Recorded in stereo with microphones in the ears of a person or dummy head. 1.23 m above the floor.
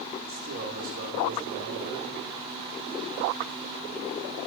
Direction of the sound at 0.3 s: 45° right (ahead or behind).